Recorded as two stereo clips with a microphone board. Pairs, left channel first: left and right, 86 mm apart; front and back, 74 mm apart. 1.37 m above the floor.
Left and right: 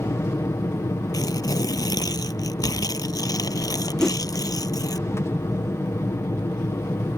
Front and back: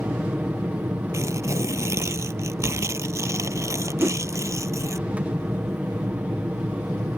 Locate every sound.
0.0 s an aircraft: 120° left
1.1 s tearing paper: 135° left
4.0 s a whoosh: 165° left